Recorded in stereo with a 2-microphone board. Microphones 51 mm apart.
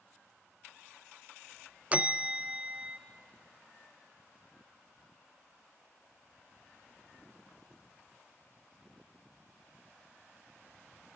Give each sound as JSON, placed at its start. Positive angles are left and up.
{"t": 1.9, "sound": "a bell", "side_deg": -25, "distance_m": 0.6}